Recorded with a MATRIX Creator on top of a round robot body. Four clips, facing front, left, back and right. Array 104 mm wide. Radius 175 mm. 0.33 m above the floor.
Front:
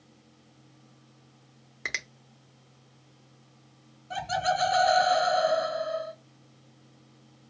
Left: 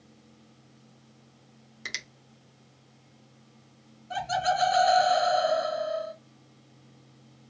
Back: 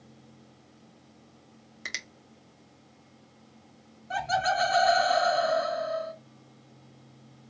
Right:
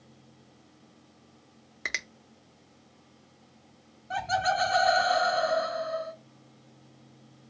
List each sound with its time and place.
1.9 s a finger snap: 55° right, 1.0 m
4.1 s laughter: 140° right, 2.5 m